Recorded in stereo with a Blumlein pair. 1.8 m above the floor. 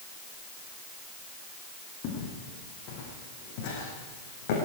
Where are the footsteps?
40° left, 6.5 m; by 4.6 s 50° left, 5.5 m.